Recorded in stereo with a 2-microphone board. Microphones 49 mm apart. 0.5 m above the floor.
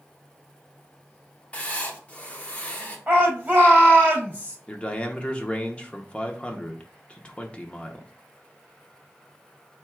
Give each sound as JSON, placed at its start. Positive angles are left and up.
{"t": 1.5, "sound": "writing", "side_deg": 25, "distance_m": 1.0}
{"t": 3.1, "sound": "a shout", "side_deg": -25, "distance_m": 3.0}
{"t": 4.7, "sound": "a man speaking", "side_deg": 20, "distance_m": 0.7}